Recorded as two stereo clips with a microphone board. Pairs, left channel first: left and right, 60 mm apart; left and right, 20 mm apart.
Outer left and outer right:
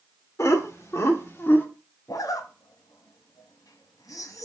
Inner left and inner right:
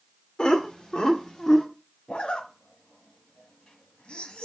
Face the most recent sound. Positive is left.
turn(degrees=85)